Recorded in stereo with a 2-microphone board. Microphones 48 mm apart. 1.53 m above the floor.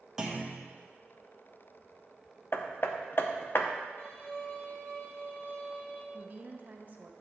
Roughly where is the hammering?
Left.